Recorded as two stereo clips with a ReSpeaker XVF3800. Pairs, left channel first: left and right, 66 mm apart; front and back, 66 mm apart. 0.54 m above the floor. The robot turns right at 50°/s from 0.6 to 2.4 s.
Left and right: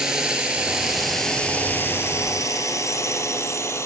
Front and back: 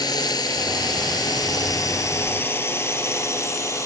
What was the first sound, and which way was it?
A drone, 10° right.